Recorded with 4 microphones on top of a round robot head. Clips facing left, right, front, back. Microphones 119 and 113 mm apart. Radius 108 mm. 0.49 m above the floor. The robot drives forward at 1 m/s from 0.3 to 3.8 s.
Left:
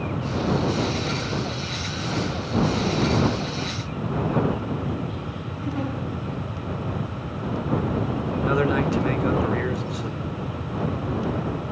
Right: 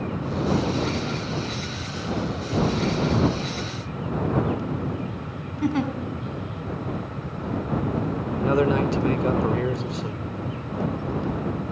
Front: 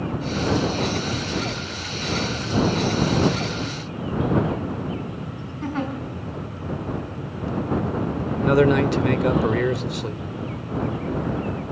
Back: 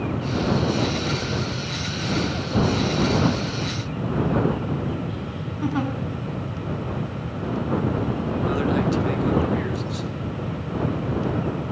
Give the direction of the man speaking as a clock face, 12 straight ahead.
1 o'clock.